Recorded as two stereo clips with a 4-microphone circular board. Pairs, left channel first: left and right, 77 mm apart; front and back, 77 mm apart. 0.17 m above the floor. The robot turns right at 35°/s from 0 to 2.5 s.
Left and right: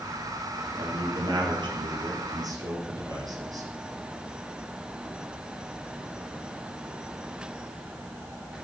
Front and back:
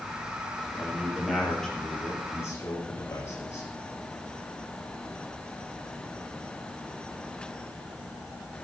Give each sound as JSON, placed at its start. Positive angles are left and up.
{"t": 0.8, "sound": "a man speaking", "azimuth_deg": -110, "distance_m": 5.0}